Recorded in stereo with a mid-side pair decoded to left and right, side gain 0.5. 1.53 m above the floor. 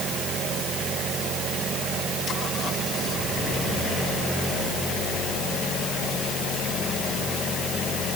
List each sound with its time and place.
Only background noise.